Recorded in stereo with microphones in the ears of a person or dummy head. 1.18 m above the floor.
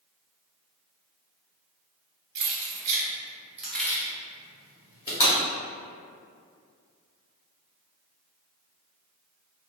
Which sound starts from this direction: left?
Breaking glass, at 5.2 s.